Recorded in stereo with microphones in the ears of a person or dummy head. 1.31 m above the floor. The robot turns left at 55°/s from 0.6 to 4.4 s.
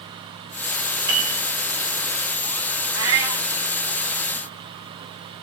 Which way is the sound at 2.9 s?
20° right (ahead or behind).